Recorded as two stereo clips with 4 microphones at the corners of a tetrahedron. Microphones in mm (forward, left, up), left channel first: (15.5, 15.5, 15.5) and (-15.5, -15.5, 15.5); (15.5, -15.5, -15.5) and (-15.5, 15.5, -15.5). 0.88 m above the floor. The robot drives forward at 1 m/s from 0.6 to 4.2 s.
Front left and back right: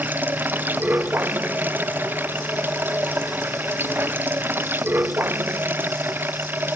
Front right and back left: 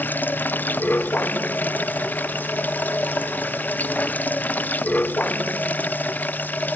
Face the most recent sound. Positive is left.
turn(degrees=-95)